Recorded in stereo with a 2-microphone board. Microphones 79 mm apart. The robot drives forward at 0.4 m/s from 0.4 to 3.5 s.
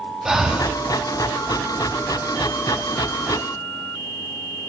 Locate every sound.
0.2 s breathing: 5° right (ahead or behind), 0.9 m